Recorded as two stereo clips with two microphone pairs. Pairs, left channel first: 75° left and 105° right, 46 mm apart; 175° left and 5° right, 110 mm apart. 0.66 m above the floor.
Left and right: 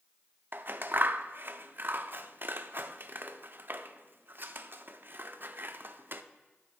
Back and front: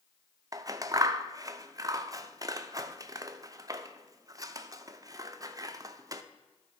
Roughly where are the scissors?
Ahead right.